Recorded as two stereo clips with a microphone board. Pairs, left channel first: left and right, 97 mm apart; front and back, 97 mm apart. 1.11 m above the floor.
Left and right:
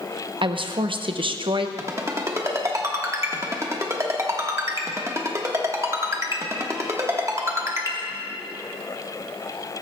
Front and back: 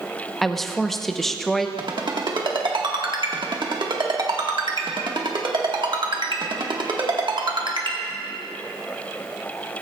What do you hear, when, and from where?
0.4 s a woman speaking: 90° right, 0.7 m
1.8 s a ringtone: 145° right, 1.4 m